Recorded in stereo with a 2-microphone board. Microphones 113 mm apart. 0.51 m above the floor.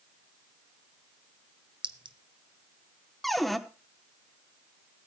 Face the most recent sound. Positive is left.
turn(degrees=0)  # may be behind; listen again after turning